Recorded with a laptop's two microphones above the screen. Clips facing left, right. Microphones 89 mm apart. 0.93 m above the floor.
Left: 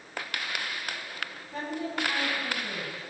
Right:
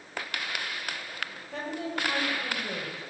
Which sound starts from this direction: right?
A woman speaking, at 1.5 s.